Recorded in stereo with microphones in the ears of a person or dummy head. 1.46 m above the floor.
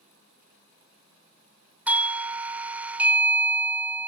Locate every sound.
1.9 s a doorbell: 10° right (ahead or behind), 0.5 m